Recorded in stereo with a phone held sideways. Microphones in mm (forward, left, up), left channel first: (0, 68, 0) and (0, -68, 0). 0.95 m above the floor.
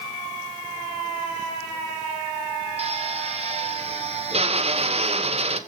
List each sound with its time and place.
2.8 s a drill: 50° right (ahead or behind), 1.6 m